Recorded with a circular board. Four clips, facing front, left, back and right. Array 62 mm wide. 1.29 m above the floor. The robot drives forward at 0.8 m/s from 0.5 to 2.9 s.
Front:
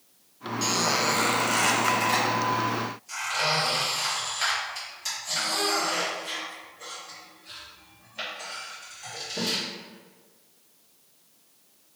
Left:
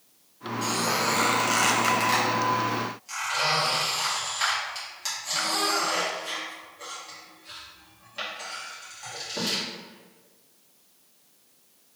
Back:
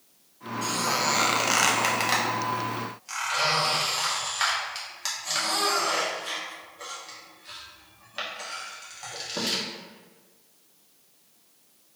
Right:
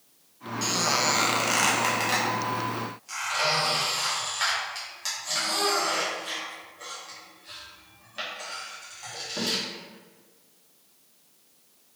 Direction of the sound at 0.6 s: 25° right.